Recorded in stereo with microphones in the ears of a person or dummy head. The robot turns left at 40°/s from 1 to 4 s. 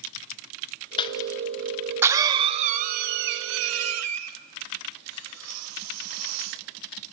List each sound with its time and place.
1.0 s a cough: 25° left (ahead or behind), 0.5 m; by 7.1 s 85° right, 0.5 m